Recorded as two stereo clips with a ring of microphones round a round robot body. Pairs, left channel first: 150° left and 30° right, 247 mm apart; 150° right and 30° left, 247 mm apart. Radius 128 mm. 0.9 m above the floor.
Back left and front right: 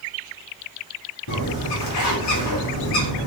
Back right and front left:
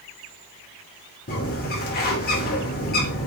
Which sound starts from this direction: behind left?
A bird, at 1.3 s.